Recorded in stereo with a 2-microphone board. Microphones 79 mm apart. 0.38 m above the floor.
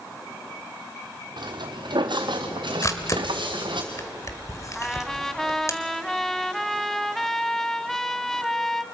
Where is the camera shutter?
40° left (ahead or behind), 1.6 m.